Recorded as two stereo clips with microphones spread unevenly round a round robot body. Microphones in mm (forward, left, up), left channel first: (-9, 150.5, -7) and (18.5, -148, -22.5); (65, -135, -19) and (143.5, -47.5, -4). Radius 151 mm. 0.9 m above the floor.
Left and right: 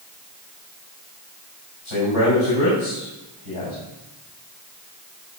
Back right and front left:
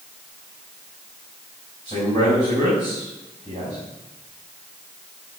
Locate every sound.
1.9 s a man speaking: 105° left, 5 m